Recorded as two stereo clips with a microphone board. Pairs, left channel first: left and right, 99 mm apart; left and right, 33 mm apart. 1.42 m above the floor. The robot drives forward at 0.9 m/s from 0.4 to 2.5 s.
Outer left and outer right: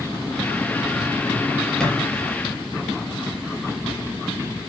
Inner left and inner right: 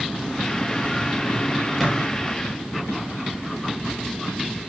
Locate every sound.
1.8 s a thud: 5° left (ahead or behind), 4 m